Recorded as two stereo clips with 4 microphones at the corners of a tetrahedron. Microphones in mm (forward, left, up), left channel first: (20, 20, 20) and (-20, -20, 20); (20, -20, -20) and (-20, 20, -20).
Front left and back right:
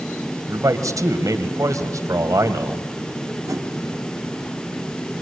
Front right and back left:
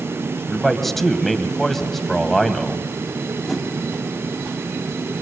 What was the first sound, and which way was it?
A man speaking, 130° right.